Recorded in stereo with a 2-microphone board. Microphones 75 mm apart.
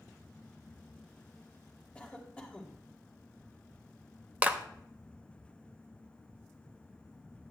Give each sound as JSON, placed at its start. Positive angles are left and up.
{"t": 1.9, "sound": "a cough", "side_deg": 15, "distance_m": 1.4}
{"t": 4.4, "sound": "a clap", "side_deg": -20, "distance_m": 0.8}